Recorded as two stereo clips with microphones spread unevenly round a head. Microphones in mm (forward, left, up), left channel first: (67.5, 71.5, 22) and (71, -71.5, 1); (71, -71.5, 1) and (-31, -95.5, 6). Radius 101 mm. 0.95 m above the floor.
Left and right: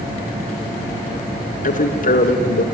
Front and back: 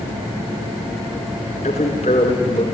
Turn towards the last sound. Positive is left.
turn(degrees=65)